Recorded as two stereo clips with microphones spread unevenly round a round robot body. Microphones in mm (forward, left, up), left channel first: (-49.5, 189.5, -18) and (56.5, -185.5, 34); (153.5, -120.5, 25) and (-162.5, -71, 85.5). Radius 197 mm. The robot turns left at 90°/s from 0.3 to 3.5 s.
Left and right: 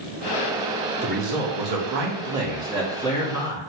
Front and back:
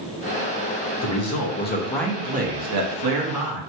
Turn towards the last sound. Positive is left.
turn(degrees=140)